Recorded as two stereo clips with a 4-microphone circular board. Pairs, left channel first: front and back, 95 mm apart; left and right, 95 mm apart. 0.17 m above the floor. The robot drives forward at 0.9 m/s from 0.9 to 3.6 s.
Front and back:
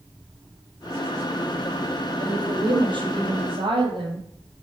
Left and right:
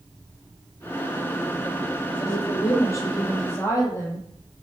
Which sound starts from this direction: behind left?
A woman speaking, at 2.2 s.